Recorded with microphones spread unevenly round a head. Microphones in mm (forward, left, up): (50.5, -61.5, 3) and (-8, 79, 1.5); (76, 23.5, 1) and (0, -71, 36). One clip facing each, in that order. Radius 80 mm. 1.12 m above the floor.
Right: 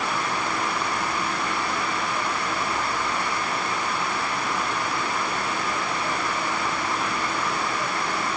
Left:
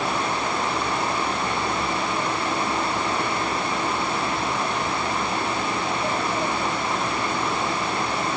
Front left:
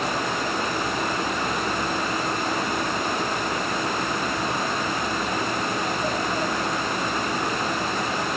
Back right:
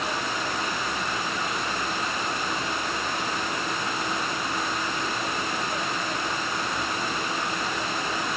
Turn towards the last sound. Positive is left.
No sound to turn to.